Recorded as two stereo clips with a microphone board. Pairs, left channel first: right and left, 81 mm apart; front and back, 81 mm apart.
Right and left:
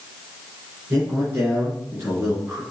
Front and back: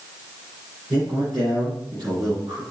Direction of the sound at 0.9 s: 150° left.